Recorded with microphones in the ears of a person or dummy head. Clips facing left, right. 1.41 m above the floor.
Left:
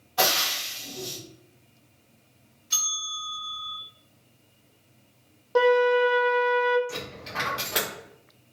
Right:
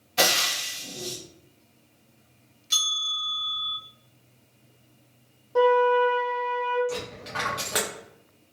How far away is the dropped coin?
About 0.7 m.